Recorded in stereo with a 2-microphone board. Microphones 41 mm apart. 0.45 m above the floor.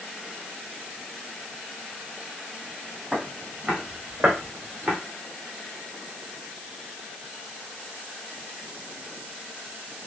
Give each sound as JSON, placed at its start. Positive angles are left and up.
{"t": 3.1, "sound": "footsteps", "side_deg": -15, "distance_m": 1.8}